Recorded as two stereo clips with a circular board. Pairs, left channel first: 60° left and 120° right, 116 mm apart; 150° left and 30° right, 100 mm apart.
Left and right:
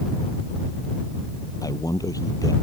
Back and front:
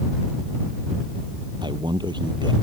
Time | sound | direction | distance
1.6 | a man speaking | 5° left | ?